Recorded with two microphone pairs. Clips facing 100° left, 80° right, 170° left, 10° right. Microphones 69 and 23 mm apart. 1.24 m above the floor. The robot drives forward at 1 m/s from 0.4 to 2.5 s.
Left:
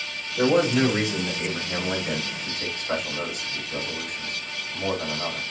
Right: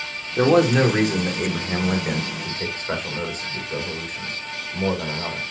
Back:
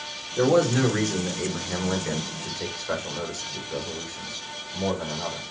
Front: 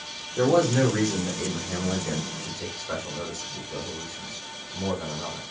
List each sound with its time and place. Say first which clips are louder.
0.4 s a man speaking: right 4 dB, even; 100° right, 3 m; by 5.4 s 130° right, 4 m